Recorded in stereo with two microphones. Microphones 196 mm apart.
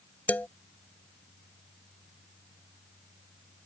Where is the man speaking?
10° left (ahead or behind).